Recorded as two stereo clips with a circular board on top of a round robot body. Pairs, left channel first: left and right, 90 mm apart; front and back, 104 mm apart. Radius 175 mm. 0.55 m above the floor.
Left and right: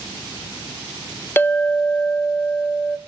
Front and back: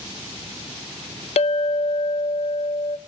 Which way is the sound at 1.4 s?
20° left.